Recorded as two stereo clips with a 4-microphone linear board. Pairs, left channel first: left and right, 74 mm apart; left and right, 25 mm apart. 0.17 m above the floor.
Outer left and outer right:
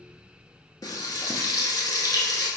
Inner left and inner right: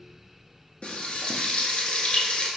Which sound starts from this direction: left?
Frying, at 0.8 s.